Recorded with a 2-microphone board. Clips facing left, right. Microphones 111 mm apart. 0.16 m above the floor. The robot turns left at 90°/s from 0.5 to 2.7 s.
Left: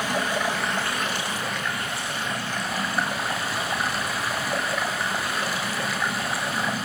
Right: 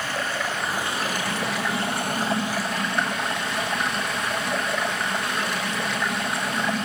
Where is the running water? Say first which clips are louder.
Left 3 dB; 15° left, 6 m; by 6.9 s 175° left, 6 m.